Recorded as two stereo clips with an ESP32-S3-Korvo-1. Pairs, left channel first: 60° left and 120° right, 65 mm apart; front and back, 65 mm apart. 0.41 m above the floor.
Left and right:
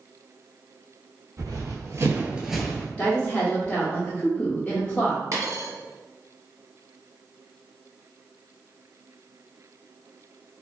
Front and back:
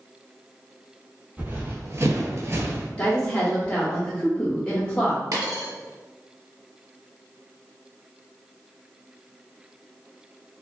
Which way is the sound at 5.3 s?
155° right.